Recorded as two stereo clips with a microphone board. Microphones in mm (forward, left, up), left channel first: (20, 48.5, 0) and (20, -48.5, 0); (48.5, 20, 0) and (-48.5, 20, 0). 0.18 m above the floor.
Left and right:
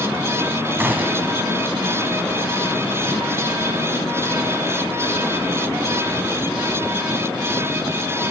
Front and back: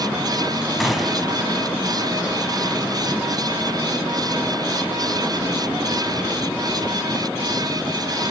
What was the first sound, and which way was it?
A gunshot, 95° right.